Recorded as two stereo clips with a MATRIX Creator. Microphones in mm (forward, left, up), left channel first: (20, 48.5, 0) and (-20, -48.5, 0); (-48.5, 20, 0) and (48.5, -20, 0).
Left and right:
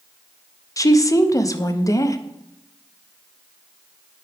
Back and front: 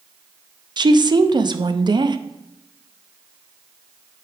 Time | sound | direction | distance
0.8 | a woman speaking | 15° left | 0.6 m